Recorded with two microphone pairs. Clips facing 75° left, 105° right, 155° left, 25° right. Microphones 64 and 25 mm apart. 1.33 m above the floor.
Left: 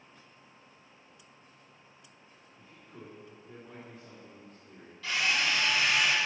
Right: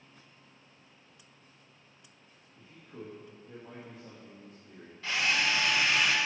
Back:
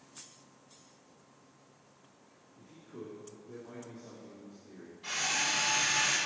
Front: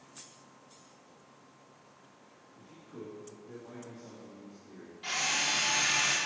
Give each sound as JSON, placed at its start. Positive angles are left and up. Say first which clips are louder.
{"t": 2.5, "sound": "a man speaking", "louder": "right 4 dB, even", "azimuth_deg": -55, "distance_m": 2.0}
{"t": 5.0, "sound": "a drill", "louder": "even, front 1 dB", "azimuth_deg": -45, "distance_m": 1.6}